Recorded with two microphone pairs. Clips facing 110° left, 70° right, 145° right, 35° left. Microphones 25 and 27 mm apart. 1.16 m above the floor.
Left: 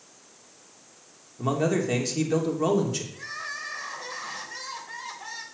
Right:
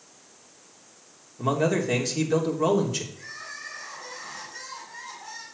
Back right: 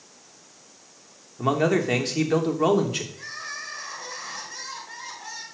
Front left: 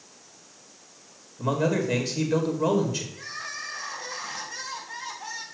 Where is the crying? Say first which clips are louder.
Left 4 dB, back right 1 dB; 125° left, 4 m.